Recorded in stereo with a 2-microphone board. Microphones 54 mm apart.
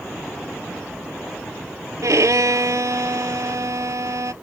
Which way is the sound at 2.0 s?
75° right (ahead or behind).